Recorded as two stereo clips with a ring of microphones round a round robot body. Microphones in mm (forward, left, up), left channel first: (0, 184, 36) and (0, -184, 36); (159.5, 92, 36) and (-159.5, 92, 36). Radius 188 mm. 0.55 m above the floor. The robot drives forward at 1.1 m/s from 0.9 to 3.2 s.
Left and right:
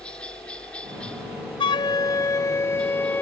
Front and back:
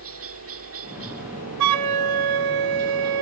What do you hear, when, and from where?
0.0 s a helicopter: 175° left
1.6 s a flute: 165° left; by 3.2 s 175° left